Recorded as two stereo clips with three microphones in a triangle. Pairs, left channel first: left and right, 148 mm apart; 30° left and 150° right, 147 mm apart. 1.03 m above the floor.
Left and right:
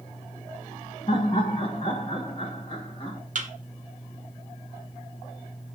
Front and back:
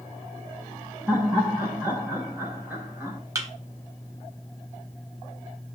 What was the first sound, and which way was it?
Laughter, 140° left.